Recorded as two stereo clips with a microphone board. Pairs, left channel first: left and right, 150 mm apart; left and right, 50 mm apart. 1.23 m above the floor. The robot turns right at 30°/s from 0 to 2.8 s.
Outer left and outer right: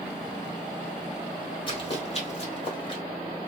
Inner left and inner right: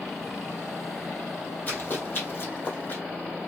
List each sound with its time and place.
1.7 s running footsteps: 35° left (ahead or behind), 1.6 m; by 3.0 s 30° left (ahead or behind), 1.6 m